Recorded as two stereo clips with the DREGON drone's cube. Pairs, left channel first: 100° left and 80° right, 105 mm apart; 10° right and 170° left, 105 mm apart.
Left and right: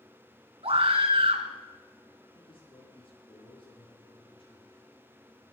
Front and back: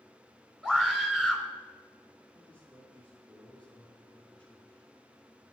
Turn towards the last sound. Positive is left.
turn(degrees=65)